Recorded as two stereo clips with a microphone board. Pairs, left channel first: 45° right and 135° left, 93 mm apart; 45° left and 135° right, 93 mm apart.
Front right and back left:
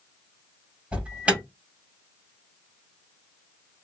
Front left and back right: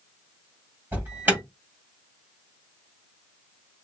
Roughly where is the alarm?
Behind.